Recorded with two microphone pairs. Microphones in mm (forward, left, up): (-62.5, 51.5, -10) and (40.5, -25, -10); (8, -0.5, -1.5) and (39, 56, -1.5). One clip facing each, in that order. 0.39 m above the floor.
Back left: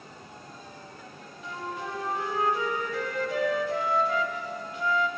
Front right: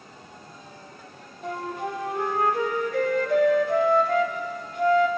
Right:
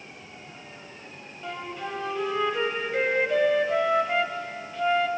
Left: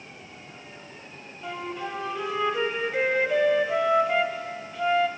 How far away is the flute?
About 2.5 m.